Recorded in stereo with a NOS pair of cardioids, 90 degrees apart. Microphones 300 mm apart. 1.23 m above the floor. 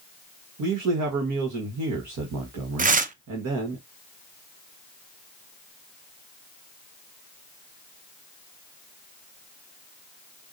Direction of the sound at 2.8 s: 25° right.